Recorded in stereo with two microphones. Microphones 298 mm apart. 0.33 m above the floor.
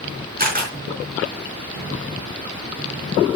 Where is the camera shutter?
30° right (ahead or behind), 4 m.